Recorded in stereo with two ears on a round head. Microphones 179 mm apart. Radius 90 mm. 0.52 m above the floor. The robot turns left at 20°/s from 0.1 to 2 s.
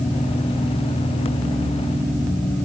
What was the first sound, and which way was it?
Only background noise.